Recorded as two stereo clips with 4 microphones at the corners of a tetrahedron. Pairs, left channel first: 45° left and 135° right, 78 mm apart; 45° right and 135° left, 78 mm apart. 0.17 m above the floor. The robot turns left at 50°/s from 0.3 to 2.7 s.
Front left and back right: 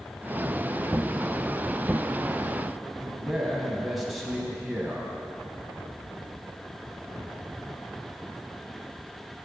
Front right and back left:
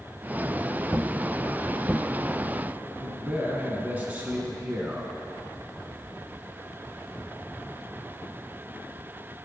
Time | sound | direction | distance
3.0 | a man speaking | 135° left | 1.2 m